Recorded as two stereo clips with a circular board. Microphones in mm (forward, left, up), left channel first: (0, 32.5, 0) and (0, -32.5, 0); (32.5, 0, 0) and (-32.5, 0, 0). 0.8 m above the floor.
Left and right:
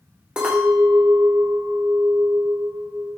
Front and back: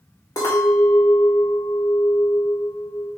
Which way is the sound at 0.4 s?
15° right.